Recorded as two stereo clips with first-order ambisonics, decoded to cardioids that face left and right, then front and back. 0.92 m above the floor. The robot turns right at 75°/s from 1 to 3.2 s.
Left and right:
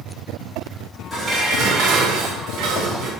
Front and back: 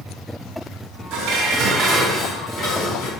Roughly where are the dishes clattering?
Behind.